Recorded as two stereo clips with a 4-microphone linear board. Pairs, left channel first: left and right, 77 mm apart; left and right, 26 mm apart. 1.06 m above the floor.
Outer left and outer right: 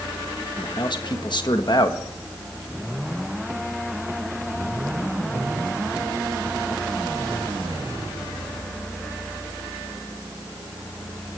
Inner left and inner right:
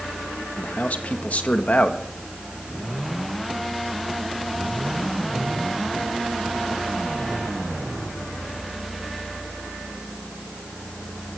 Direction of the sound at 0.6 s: 65° left (ahead or behind).